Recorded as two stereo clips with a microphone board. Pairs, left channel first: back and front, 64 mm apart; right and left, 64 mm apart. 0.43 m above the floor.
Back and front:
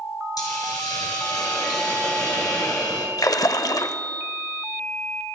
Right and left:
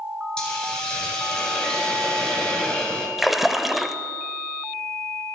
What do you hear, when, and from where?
0.4 s a hiss: 165° right, 2.5 m
3.2 s a splash: 175° left, 0.6 m